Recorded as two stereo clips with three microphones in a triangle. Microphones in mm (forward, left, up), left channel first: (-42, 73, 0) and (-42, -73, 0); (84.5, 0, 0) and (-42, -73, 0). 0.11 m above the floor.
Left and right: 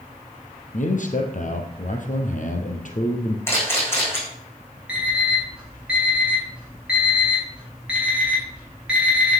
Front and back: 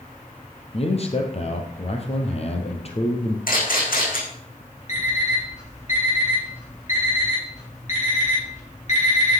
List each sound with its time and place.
0.7 s a man speaking: 70° left, 2.5 m
3.5 s a camera shutter: 15° left, 7 m
4.9 s an alarm clock: 10° right, 8 m